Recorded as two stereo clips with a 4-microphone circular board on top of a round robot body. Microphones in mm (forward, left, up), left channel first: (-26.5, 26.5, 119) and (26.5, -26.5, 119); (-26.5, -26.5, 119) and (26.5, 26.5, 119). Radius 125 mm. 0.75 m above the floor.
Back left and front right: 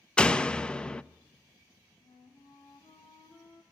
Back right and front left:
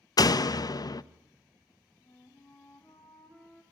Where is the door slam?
150° right, 0.7 m.